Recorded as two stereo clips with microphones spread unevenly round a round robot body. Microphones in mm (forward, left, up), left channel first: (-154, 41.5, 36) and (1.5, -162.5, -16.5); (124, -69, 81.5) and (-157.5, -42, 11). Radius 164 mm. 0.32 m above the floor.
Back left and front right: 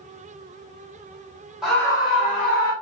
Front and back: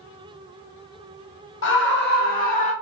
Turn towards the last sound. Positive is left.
turn(degrees=65)